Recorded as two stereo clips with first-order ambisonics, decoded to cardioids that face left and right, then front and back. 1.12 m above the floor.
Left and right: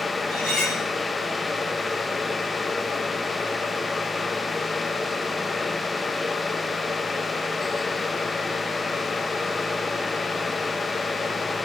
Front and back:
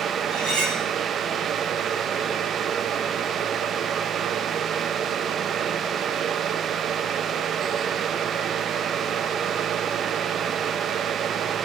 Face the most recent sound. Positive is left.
turn(degrees=145)